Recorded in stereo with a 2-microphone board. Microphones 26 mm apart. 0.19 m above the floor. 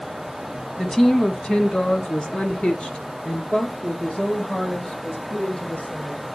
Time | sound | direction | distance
0.8 | a woman speaking | 10° left (ahead or behind) | 1.1 m